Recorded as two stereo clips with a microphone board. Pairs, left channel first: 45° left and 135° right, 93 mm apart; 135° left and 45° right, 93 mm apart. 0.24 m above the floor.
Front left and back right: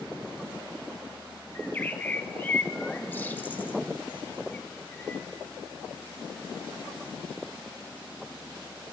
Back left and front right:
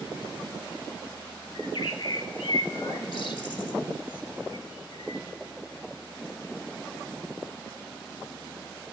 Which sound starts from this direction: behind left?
A bird, at 1.6 s.